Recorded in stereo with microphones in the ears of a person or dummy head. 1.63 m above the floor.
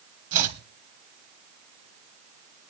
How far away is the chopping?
About 1.7 m.